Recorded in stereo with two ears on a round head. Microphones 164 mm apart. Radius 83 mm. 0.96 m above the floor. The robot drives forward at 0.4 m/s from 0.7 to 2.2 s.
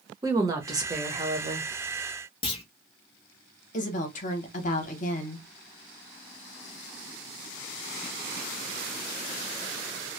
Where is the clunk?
30° left (ahead or behind), 0.9 m.